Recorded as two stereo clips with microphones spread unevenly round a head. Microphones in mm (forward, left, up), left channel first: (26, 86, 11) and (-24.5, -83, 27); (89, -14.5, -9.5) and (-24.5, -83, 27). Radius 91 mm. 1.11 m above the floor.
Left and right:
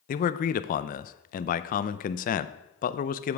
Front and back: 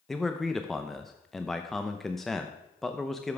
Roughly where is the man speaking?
Behind left.